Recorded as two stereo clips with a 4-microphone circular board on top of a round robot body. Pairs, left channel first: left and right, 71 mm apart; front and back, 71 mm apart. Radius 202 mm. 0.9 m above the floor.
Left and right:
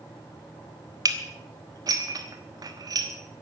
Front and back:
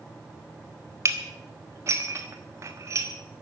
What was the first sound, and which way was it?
Dishes clattering, 130° right.